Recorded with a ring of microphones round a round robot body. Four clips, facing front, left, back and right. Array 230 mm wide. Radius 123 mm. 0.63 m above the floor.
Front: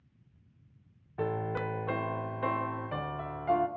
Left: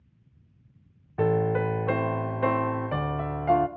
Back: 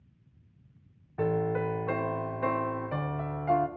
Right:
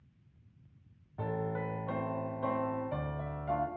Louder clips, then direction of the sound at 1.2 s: Left 12 dB, back 5 dB; 95° left.